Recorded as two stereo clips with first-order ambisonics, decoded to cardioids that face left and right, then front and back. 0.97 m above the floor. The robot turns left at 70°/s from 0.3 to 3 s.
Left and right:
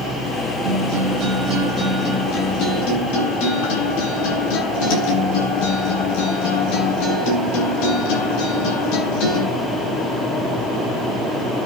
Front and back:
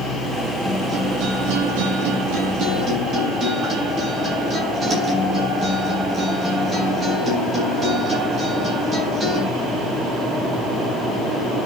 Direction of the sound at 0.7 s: 95° right.